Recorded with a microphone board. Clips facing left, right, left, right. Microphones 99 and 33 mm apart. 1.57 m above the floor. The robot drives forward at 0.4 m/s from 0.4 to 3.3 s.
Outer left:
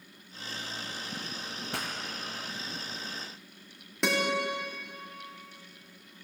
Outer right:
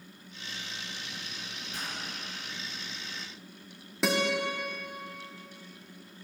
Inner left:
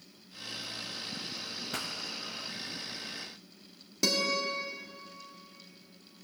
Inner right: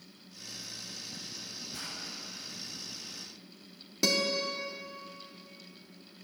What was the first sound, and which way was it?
A pop, 75° left (ahead or behind).